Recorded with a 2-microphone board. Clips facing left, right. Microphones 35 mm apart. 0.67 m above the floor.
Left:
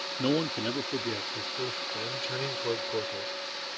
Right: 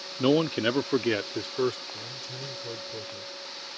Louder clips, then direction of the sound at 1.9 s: Left 6 dB; 55° left (ahead or behind).